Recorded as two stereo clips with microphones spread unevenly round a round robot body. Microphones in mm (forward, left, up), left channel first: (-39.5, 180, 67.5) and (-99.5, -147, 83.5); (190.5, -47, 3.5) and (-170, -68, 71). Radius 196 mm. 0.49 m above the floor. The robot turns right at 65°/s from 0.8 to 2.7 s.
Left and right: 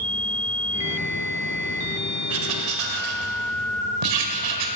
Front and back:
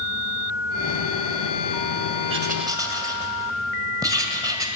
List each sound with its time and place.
2.3 s writing: 120° right, 1.8 m; by 4.7 s 95° right, 1.8 m